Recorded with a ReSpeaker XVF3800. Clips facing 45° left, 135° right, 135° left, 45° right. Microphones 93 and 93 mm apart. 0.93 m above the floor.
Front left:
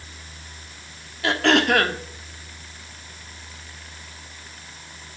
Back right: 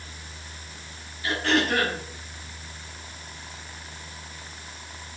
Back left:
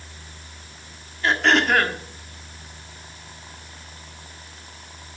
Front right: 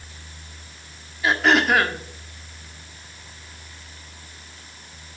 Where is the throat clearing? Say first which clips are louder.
Front left 5 dB, front right 1 dB; 40° left, 1.4 m.